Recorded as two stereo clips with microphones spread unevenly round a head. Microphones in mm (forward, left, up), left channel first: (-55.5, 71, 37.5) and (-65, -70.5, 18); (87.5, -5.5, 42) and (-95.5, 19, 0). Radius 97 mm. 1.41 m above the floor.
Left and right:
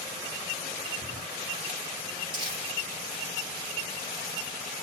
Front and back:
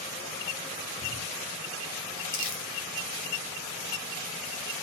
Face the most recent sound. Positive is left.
turn(degrees=-35)